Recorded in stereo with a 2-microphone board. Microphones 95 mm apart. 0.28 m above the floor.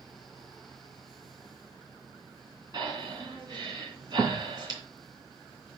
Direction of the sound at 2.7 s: 45° right (ahead or behind).